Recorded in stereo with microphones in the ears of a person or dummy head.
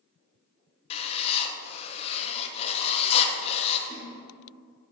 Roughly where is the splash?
Right.